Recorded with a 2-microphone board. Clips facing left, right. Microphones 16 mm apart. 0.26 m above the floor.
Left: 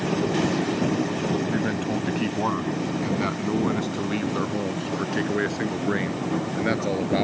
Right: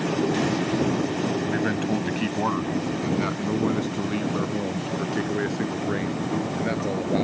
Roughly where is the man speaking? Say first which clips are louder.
Right 1 dB; centre.